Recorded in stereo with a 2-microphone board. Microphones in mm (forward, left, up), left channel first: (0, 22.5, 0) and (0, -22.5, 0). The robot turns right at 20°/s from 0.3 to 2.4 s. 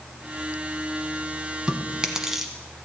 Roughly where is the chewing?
Right.